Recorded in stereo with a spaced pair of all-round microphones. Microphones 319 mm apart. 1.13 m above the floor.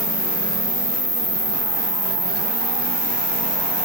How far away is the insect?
About 1.2 m.